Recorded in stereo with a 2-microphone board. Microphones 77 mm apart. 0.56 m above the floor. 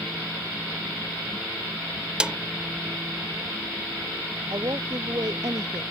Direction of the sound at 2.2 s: 10° right (ahead or behind).